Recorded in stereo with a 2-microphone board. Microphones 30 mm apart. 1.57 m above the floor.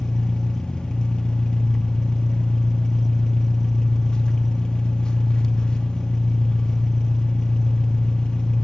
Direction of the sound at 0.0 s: 25° left (ahead or behind).